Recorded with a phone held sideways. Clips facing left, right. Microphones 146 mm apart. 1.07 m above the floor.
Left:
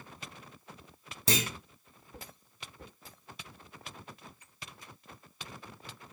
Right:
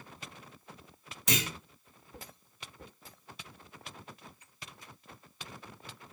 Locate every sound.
1.3 s a clunk: 35° left (ahead or behind), 3 m